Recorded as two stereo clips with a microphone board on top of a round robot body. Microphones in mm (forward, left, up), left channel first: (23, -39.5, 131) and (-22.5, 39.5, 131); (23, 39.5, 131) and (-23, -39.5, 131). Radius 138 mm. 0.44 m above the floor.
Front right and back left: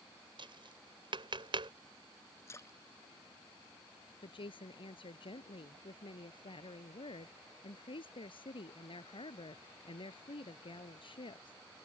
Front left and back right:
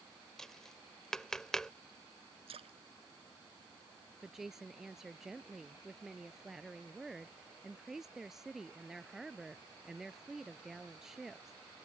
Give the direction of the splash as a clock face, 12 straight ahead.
4 o'clock.